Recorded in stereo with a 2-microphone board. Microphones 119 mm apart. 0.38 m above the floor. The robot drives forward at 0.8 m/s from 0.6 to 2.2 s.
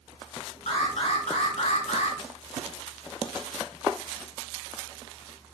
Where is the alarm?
65° left (ahead or behind), 4 m; by 2.2 s 80° left, 3.5 m.